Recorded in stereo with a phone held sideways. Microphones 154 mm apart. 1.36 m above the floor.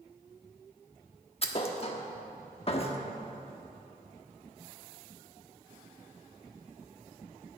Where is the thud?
40° left (ahead or behind), 1.2 m.